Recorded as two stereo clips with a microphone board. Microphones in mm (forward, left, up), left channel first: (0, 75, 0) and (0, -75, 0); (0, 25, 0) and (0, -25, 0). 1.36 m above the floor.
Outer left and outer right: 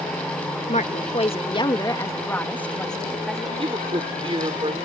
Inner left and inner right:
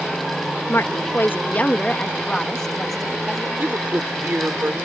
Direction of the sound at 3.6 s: 35° right (ahead or behind).